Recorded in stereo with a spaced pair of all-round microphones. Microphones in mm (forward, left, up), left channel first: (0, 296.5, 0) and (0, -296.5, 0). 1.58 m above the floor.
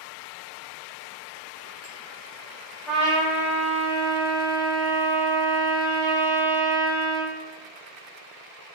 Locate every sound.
2.9 s a trumpet: 10° left (ahead or behind), 1.6 m